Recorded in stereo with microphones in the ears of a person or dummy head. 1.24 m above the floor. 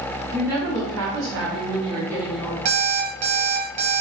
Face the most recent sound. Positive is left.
turn(degrees=-35)  # may be behind; listen again after turning